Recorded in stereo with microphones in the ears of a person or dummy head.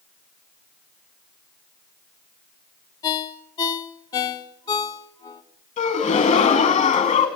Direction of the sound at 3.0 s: 20° left (ahead or behind).